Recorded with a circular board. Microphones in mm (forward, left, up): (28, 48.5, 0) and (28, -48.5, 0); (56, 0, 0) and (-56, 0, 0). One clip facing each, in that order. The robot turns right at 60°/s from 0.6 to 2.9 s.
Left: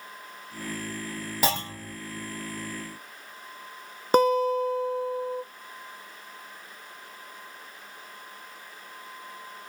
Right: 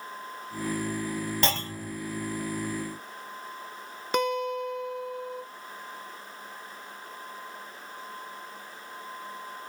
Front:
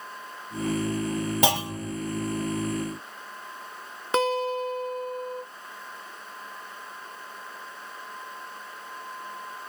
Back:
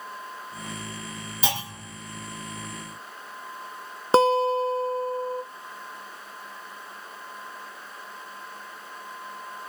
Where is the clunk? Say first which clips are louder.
Left 1 dB, front 3 dB; 10° left, 1.6 m; by 2.0 s 40° left, 1.6 m.